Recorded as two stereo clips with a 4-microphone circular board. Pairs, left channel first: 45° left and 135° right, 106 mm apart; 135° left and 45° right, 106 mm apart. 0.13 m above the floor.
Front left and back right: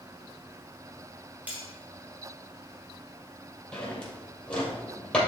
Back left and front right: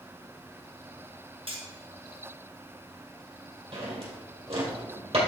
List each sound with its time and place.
1.5 s cutlery clinking: 60° right, 2.0 m
3.7 s a drawer: 35° right, 2.5 m